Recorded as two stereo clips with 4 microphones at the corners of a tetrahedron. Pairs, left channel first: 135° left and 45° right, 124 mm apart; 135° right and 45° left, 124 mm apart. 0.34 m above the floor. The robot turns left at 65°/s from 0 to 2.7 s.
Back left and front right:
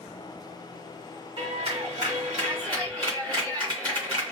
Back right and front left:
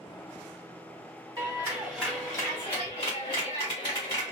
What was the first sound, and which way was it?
A clap, 5° right.